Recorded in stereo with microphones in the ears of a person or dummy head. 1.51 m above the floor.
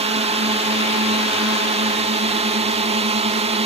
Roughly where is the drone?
Right.